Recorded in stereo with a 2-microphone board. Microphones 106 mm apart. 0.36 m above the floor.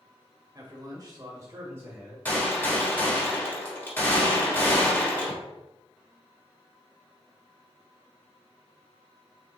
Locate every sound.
0.6 s a man speaking: 40° right (ahead or behind), 1.1 m; by 2.1 s 20° right (ahead or behind), 1.3 m
2.2 s a gunshot: 20° left (ahead or behind), 1.1 m